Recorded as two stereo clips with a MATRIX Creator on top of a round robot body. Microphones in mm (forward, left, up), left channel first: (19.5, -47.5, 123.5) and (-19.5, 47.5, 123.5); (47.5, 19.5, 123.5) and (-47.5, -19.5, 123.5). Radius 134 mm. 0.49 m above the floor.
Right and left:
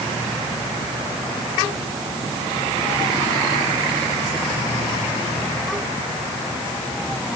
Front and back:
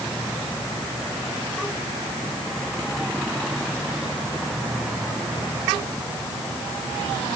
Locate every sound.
Only background noise.